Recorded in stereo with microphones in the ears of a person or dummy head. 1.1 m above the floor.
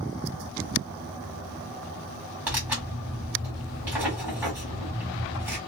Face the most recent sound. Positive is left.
turn(degrees=-10)  # may be behind; listen again after turning